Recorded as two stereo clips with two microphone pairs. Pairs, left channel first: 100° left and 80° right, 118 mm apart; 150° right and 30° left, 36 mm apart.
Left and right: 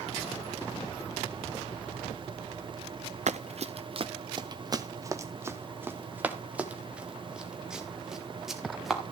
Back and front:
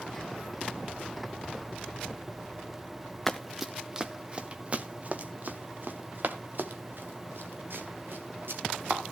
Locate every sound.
3.3 s running footsteps: 65° right, 0.8 m; by 9.0 s 5° left, 3 m